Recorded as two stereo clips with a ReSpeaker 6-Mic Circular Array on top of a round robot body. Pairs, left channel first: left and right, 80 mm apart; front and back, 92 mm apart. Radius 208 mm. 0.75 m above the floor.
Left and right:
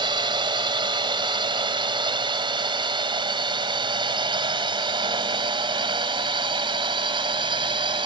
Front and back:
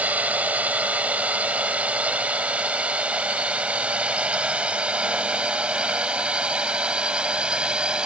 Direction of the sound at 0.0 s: 105° right.